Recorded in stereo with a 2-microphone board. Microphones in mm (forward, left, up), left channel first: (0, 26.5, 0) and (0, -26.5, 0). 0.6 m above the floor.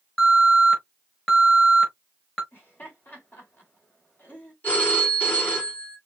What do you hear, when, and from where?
0.2 s an alarm: 10° left (ahead or behind), 4.5 m
2.5 s laughter: 40° left (ahead or behind), 3.5 m
4.6 s a phone ringing: 35° left (ahead or behind), 4 m